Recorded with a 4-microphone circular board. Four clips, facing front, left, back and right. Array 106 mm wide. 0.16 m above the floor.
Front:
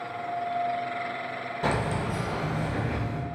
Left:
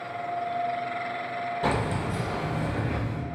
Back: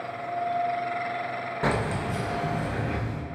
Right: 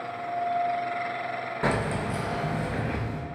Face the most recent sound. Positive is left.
turn(degrees=-120)